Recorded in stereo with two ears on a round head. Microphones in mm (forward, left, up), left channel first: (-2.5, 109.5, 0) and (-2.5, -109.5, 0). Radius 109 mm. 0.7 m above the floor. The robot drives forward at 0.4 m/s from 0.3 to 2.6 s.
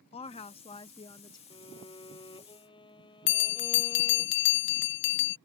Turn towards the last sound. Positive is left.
turn(degrees=50)  # may be behind; listen again after turning